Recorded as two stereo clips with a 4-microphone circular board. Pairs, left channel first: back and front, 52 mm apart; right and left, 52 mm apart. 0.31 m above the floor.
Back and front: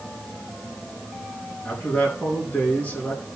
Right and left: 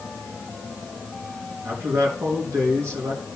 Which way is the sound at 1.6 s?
115° left.